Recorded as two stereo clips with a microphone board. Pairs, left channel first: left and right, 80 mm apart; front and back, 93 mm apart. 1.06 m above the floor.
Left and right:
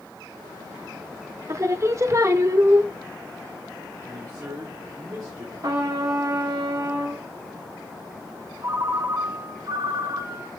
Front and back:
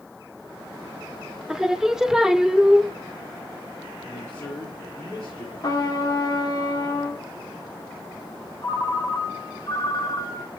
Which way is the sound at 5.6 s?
45° right.